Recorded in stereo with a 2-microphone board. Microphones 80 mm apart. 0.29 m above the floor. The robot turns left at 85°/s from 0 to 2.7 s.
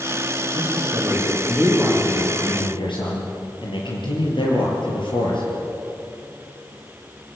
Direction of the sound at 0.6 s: 95° right.